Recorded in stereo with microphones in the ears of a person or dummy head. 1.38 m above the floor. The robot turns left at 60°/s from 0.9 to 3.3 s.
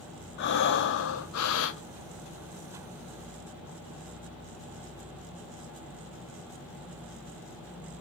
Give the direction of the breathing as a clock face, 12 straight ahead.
8 o'clock.